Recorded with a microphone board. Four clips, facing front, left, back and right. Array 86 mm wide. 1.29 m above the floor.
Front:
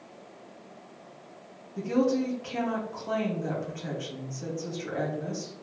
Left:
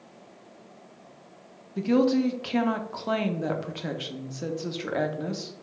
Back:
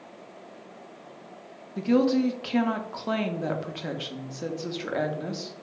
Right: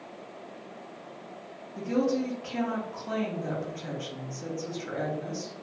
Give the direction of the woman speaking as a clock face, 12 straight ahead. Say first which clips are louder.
Left 5 dB, back 3 dB; 8 o'clock.